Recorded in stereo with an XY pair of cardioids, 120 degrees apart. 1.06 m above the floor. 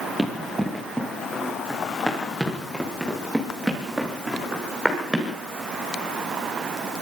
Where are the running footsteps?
5° left, 6 m; by 5.3 s 5° right, 9 m.